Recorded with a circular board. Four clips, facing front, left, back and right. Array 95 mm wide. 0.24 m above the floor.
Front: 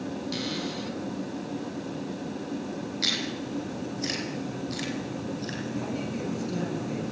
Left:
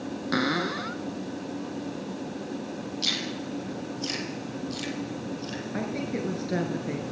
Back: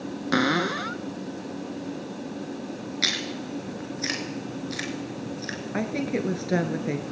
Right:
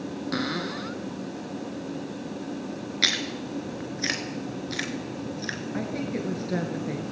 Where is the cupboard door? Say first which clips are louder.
Left 4 dB, back 8 dB; 165° left, 0.8 m.